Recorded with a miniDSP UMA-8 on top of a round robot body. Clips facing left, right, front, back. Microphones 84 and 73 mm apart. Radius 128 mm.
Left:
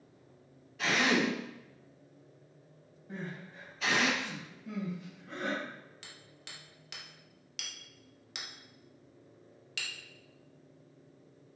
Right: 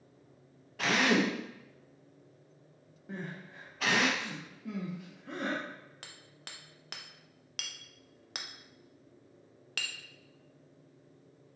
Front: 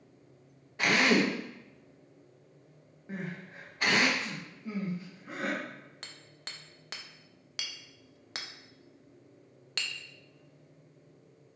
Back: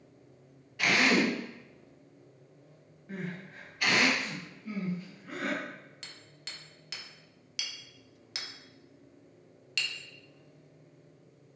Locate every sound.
0.8 s a drill: 55° right, 1.1 m
3.1 s crying: 70° right, 1.2 m
6.0 s hammering: 50° right, 0.6 m